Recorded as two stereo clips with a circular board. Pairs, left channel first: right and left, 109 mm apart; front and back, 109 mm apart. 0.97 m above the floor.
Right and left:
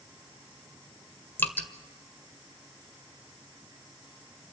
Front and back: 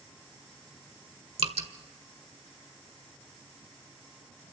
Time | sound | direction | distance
1.4 | dripping | 160° right | 1.5 m